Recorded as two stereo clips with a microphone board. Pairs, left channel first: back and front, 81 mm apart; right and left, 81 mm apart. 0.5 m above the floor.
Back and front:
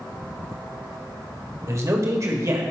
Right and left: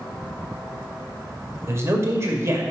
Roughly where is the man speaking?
Ahead left.